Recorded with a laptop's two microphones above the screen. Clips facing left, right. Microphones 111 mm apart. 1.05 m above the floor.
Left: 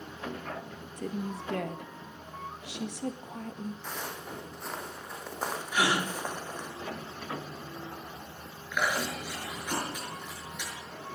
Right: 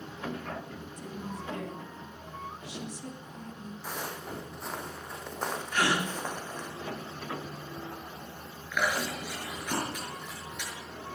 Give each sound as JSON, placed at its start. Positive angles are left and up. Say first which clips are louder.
{"t": 1.0, "sound": "a woman speaking", "louder": "left 6 dB", "side_deg": 70, "distance_m": 1.5}
{"t": 3.8, "sound": "footsteps", "louder": "right 1 dB", "side_deg": -5, "distance_m": 3.5}
{"t": 5.7, "sound": "a gasp", "louder": "even", "side_deg": 10, "distance_m": 1.9}
{"t": 8.7, "sound": "chewing", "louder": "even", "side_deg": 10, "distance_m": 5.5}